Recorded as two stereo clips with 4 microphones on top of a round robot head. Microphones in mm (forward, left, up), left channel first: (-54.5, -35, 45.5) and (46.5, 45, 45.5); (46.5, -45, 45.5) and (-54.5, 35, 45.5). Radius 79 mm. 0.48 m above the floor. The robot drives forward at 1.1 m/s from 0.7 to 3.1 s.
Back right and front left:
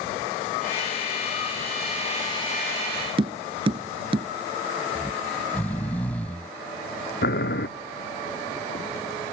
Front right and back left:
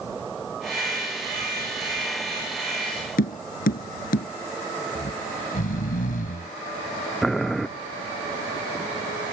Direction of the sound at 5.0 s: 60° right.